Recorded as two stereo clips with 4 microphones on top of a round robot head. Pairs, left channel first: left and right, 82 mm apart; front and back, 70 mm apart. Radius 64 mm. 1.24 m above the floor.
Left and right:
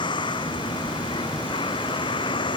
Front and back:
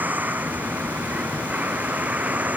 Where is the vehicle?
115° left; by 2.6 s 110° left.